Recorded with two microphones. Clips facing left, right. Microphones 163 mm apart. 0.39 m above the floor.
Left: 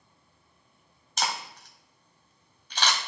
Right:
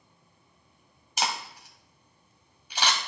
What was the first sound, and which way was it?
A camera shutter, 10° right (ahead or behind).